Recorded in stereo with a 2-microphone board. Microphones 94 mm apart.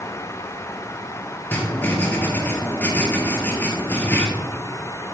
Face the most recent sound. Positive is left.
turn(degrees=20)  # may be behind; listen again after turning